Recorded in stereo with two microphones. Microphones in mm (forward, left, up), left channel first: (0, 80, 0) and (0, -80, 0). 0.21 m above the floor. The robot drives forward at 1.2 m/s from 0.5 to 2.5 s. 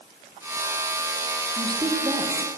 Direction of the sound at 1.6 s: 25° right (ahead or behind).